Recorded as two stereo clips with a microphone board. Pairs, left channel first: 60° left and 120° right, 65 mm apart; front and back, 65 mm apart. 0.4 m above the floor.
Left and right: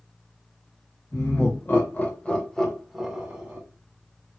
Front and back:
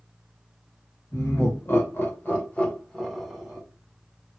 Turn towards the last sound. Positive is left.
turn(degrees=-115)